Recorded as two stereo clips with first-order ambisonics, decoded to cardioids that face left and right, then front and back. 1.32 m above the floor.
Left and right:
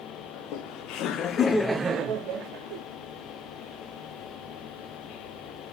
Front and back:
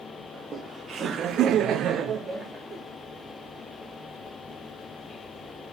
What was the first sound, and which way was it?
Laughter, 110° left.